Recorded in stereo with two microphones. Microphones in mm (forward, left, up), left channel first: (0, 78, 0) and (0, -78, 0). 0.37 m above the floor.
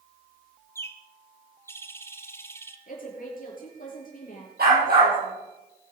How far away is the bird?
About 1.2 m.